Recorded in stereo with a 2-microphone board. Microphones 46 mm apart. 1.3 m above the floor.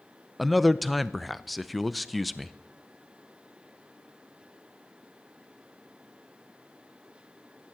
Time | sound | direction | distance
0.4 | a man speaking | centre (ahead or behind) | 0.5 m